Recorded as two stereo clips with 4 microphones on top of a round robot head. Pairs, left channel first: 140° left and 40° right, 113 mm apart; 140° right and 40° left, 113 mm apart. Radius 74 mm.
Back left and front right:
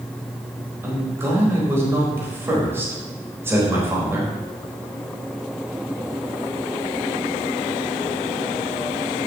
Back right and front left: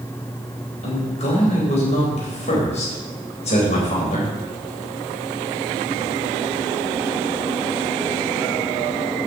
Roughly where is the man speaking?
Right.